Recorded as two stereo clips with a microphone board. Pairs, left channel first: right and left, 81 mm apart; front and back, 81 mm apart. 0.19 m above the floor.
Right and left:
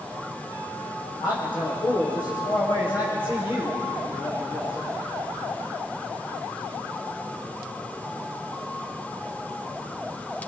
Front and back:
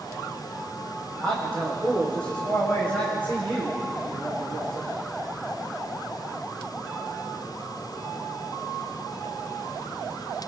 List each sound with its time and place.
1.2 s a man speaking: 75° right, 8.5 m; by 4.9 s 65° right, 11 m